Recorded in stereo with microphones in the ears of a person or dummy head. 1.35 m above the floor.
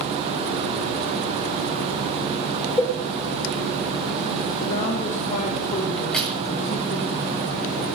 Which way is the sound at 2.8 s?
10° left (ahead or behind).